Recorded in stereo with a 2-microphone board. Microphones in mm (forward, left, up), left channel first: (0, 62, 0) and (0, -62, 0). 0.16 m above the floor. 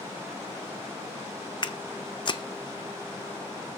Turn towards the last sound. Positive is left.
turn(degrees=40)  # may be behind; listen again after turning